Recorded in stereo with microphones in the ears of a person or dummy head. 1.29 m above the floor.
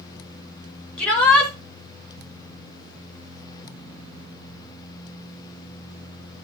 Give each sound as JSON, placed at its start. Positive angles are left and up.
{"t": 1.0, "sound": "a shout", "side_deg": 5, "distance_m": 7.0}